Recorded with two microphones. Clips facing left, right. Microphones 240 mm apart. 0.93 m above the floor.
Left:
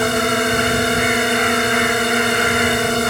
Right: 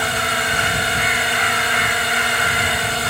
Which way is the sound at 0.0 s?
50° left (ahead or behind).